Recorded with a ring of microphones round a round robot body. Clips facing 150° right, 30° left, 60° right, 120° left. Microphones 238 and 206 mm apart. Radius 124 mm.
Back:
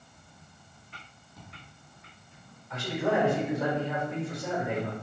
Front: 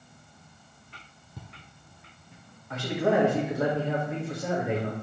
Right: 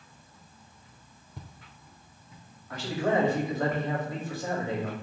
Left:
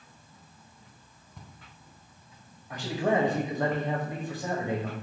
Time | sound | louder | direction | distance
1.4 | footsteps | front 2 dB, right 2 dB | 5° right | 0.8 m
2.7 | a man speaking | front 3 dB, even | 50° left | 1.7 m